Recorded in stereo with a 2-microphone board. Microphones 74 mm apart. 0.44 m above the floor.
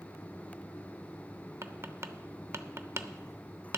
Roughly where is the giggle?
No giggle in this recording.